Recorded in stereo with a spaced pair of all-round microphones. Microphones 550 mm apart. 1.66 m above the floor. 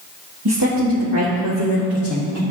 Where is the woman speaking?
40° right (ahead or behind), 1.6 m; by 2.4 s 30° right (ahead or behind), 3 m.